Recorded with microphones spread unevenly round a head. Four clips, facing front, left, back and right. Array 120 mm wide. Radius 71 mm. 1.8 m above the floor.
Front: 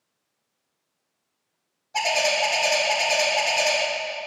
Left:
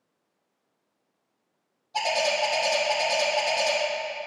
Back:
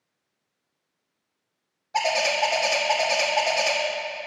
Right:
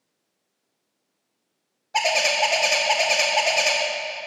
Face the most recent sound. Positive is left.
turn(degrees=-115)